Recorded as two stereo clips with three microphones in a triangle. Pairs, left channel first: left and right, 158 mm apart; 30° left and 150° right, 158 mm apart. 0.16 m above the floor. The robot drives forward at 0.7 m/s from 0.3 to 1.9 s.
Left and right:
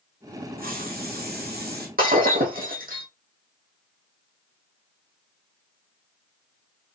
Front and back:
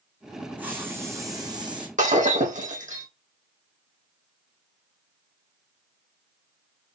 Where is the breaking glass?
115° right, 4.5 m.